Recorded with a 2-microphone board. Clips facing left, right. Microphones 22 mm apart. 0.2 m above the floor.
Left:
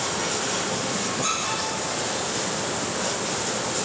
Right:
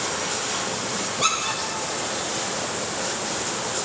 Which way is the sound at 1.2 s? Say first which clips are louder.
Right 6 dB; 70° right (ahead or behind).